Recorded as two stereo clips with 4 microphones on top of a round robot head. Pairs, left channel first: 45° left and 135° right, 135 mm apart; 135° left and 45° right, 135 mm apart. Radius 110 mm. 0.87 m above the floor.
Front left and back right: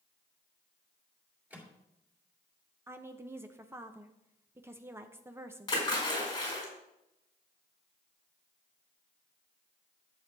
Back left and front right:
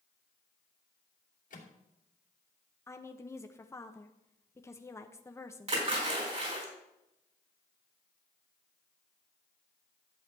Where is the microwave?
145° left, 2.5 m.